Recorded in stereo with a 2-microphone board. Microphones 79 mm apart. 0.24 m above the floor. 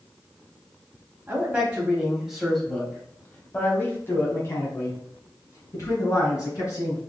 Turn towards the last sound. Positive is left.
turn(degrees=45)  # may be behind; listen again after turning